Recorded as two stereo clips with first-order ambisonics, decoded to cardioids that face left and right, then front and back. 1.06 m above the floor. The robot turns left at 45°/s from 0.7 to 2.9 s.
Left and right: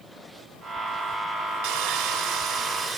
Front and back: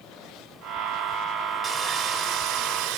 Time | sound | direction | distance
1.6 | sawing | 95° right | 4 m